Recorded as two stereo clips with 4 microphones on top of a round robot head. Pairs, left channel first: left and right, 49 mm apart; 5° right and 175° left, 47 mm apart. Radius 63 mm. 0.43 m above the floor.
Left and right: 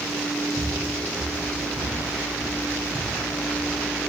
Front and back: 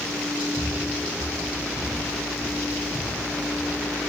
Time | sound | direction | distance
0.6 | footsteps | 65° right | 3.5 m